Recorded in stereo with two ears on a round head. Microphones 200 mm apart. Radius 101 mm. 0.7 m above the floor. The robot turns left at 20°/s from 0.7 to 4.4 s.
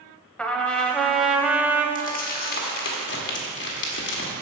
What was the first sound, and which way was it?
A trumpet, 5° left (ahead or behind).